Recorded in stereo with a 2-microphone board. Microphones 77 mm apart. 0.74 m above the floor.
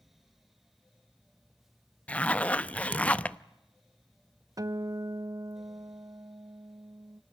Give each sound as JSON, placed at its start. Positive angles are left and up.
{"t": 2.1, "sound": "a zipper", "side_deg": 20, "distance_m": 0.6}
{"t": 4.6, "sound": "a guitar", "side_deg": -50, "distance_m": 0.6}